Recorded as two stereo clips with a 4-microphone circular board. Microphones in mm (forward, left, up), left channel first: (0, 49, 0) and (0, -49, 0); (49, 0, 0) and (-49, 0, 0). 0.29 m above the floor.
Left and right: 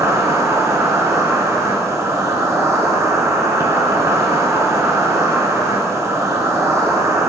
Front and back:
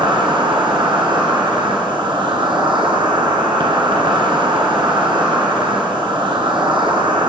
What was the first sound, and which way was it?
An insect, 150° right.